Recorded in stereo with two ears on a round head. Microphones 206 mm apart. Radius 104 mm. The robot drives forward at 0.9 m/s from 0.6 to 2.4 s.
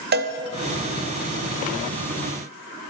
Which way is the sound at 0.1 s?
45° right (ahead or behind).